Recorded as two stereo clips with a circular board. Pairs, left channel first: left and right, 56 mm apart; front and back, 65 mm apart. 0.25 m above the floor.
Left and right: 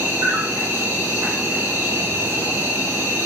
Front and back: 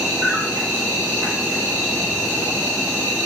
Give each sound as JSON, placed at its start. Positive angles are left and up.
{"t": 0.0, "sound": "an insect", "azimuth_deg": -135, "distance_m": 0.9}